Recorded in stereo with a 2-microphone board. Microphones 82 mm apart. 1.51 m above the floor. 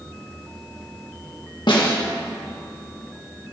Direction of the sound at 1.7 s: 70° left (ahead or behind).